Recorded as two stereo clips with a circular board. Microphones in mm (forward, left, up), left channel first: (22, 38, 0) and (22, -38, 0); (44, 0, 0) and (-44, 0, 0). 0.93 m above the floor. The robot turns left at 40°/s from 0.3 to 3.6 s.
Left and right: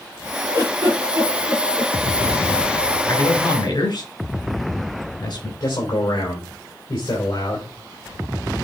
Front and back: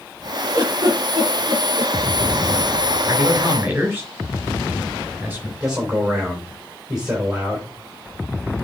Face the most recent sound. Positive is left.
turn(degrees=100)